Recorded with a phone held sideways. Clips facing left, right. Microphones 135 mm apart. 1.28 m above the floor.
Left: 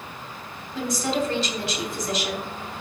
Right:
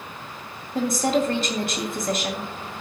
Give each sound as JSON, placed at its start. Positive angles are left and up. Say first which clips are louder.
{"t": 0.8, "sound": "a woman speaking", "louder": "right 4 dB", "side_deg": -50, "distance_m": 3.0}